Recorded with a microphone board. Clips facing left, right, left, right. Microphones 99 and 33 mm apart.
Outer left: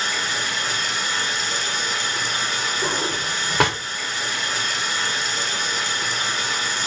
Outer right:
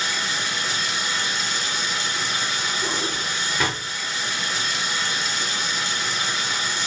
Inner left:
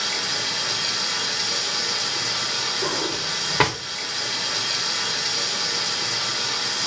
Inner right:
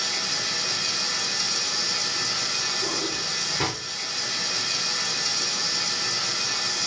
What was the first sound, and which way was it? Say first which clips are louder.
Running water: outer left 1 dB, inner left 3 dB; 50° left (ahead or behind).